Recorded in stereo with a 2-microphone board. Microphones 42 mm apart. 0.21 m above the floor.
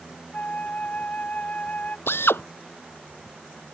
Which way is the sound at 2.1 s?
65° left (ahead or behind).